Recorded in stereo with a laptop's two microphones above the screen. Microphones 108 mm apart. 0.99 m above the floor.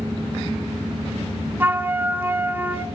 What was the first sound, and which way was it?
A flute, 15° right (ahead or behind).